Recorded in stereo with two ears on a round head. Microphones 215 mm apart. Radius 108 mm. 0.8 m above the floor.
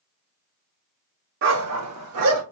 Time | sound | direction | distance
1.4 | a dog barking | 50° right (ahead or behind) | 0.8 m